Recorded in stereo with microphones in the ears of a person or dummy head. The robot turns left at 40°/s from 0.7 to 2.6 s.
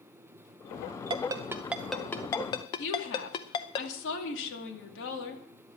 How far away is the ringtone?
About 0.7 m.